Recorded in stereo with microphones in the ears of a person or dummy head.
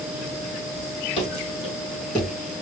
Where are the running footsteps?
35° left (ahead or behind), 2.5 m; by 2.3 s 25° left (ahead or behind), 3.5 m.